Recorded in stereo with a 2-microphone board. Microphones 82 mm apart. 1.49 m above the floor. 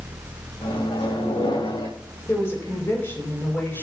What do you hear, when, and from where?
0.6 s a microwave: 85° left, 2.5 m
2.3 s a woman speaking: 30° left (ahead or behind), 5.5 m